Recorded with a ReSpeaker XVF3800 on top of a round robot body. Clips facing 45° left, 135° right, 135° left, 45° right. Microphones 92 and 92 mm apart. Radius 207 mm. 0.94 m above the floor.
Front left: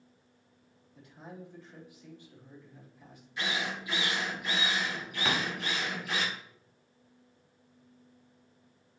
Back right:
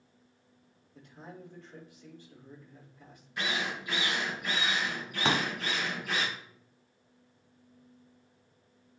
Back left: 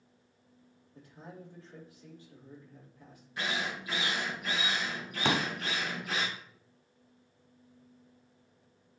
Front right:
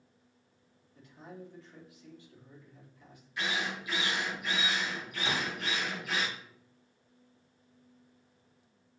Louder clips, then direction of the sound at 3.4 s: Back right 1 dB, even; 175° right.